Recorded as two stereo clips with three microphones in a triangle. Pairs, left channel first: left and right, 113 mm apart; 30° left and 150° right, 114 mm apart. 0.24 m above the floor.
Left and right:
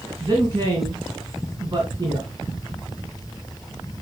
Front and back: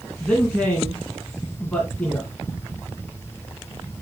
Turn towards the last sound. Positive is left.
turn(degrees=-50)